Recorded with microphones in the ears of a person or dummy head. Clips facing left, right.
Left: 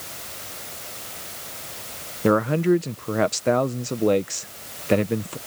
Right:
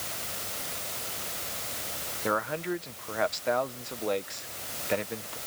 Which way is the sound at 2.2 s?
55° left (ahead or behind).